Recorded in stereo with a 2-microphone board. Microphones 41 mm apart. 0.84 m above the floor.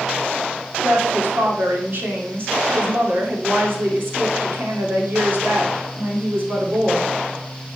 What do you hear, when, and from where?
0.8 s a woman speaking: 55° right (ahead or behind), 2.5 m